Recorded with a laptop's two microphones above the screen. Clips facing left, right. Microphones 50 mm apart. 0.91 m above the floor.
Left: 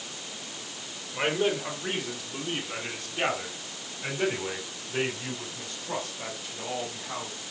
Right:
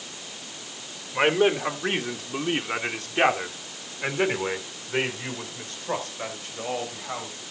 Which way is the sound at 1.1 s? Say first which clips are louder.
Right 6 dB; 45° right (ahead or behind).